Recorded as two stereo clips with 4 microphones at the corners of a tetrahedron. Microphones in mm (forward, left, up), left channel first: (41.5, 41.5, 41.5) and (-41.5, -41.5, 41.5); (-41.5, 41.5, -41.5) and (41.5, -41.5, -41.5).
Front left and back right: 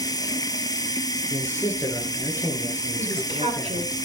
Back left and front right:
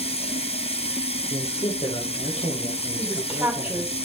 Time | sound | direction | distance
0.0 | running water | 105° left | 1.0 m
1.3 | a man speaking | 115° left | 3 m
3.0 | a woman speaking | 120° right | 3.5 m